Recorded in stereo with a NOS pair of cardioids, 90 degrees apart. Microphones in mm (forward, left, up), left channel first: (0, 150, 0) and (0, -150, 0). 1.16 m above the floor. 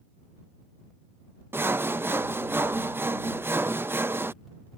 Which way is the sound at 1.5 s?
10° right.